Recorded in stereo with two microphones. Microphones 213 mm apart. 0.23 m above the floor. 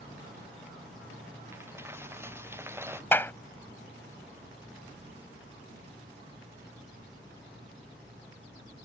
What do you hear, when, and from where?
1.5 s a dropped coin: 10° right (ahead or behind)
3.1 s a clap: 10° left (ahead or behind)